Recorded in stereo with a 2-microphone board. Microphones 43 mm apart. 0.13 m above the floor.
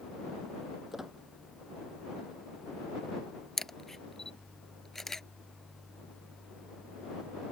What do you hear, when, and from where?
0.9 s a squeak: 5° right (ahead or behind)
3.6 s a camera shutter: 10° left (ahead or behind)